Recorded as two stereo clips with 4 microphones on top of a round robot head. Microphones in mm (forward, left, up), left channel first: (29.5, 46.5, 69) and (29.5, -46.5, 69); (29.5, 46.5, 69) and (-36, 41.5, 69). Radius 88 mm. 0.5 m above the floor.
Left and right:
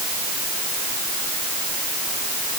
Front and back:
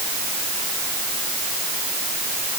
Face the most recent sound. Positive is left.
No sound to turn to.